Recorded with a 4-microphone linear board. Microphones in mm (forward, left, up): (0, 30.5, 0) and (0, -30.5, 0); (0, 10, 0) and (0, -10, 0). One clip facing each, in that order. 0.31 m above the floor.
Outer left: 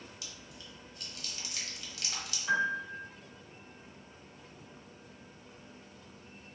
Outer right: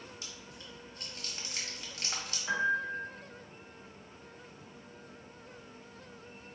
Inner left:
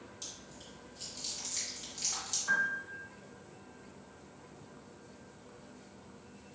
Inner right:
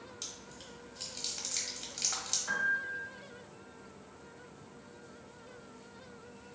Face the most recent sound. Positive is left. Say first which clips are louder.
# even, inner left 1 dB
turn(degrees=-25)  # may be behind; listen again after turning